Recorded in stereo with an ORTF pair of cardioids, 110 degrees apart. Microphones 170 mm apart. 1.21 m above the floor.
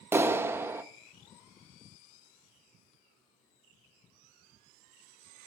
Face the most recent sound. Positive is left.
turn(degrees=-15)